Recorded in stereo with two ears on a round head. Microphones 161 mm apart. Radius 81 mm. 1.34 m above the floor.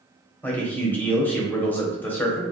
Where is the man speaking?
10° left (ahead or behind), 0.6 m.